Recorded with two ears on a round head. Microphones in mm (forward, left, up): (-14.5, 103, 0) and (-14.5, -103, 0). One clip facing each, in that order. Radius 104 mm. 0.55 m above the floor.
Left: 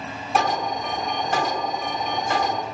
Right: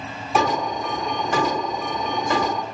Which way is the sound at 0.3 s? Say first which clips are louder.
Right 2 dB; 65° right (ahead or behind).